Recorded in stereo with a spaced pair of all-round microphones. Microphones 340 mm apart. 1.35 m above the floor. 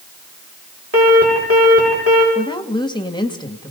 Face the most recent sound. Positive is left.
turn(degrees=15)  # may be behind; listen again after turning